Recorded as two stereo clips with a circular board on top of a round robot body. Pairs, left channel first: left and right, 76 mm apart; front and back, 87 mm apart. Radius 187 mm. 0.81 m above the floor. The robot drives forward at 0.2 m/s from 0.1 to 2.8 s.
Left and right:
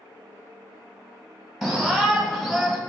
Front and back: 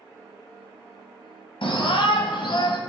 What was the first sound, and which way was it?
A shout, straight ahead.